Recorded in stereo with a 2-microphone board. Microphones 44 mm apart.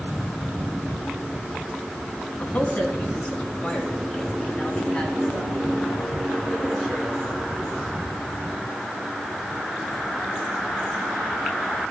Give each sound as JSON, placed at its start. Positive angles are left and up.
{"t": 2.4, "sound": "a man speaking", "side_deg": 40, "distance_m": 3.0}